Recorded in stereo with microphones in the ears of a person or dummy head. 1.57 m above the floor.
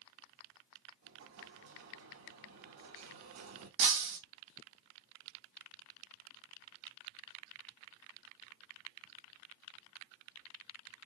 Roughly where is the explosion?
Right.